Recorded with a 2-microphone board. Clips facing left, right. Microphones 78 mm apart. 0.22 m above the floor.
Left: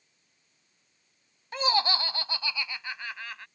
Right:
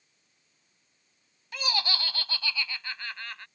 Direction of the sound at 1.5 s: 30° left (ahead or behind).